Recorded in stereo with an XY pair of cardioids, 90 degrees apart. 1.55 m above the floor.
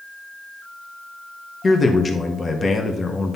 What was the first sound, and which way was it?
A man speaking, 30° left.